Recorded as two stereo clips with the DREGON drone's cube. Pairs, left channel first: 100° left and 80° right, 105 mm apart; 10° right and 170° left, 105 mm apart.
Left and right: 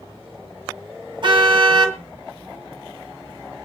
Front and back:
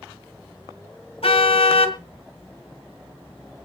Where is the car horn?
40° right, 2 m.